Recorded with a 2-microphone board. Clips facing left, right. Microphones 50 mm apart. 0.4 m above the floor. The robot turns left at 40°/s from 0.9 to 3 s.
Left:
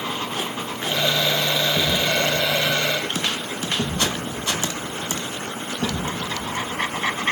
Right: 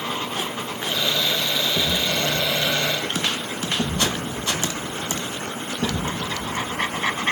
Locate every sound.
1.7 s a thud: 30° left (ahead or behind), 8.5 m; by 6.1 s 80° left, 8.5 m